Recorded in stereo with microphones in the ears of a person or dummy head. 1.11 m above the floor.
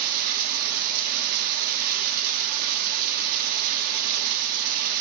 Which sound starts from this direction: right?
Running water, at 0.0 s.